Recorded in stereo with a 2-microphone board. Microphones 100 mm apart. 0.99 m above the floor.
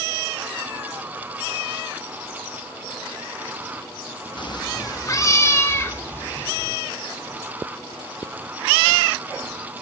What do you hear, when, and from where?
4.4 s a cat meowing: 55° left (ahead or behind), 0.5 m; by 6.7 s 20° left (ahead or behind), 1.9 m